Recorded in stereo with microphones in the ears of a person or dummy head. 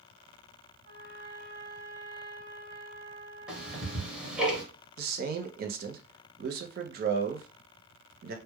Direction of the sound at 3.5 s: 5° right (ahead or behind).